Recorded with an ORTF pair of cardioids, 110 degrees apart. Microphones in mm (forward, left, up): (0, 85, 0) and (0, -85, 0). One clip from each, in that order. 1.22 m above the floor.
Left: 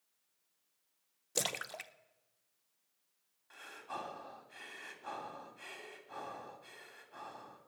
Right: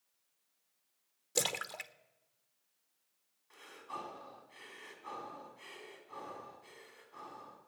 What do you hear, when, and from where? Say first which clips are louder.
1.4 s a splash: right 2 dB; straight ahead, 0.6 m
3.5 s breathing: left 1 dB; 30° left, 3 m